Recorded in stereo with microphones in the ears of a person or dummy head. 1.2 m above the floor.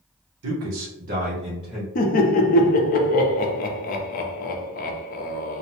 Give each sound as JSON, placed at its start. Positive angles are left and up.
{"t": 0.4, "sound": "a man speaking", "side_deg": -85, "distance_m": 0.8}
{"t": 1.9, "sound": "laughter", "side_deg": 40, "distance_m": 0.5}